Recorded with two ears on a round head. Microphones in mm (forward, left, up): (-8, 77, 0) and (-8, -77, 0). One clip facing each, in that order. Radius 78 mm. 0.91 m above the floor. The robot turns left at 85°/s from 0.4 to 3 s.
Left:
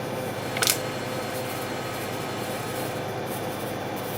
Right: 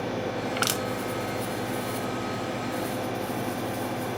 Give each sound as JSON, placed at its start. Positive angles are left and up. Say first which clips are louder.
{"t": 0.6, "sound": "crushing", "louder": "even", "side_deg": 10, "distance_m": 1.0}